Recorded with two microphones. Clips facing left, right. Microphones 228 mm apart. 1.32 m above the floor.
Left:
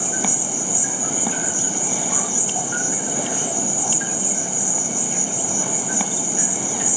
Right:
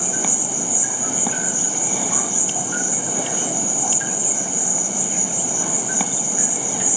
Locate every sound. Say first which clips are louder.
0.0 s an insect: even; 10° left (ahead or behind), 8 m